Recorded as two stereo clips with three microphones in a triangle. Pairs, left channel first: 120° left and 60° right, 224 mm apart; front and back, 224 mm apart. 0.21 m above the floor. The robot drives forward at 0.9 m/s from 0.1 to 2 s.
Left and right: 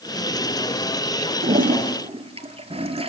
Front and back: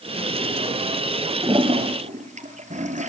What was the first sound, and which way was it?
A toilet flushing, 105° right.